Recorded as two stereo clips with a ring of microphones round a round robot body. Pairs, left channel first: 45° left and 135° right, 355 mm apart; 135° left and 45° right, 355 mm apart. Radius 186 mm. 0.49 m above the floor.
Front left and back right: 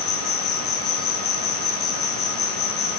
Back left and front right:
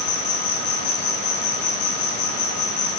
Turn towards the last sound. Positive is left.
turn(degrees=95)